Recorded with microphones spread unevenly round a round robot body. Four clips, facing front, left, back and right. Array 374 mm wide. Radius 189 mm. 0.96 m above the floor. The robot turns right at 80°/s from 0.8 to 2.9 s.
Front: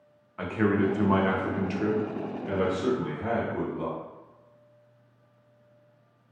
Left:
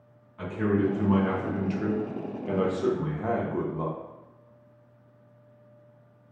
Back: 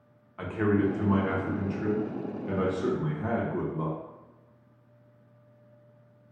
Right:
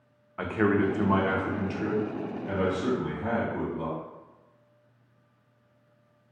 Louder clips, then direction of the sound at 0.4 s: Right 1 dB, front 1 dB; 60° right.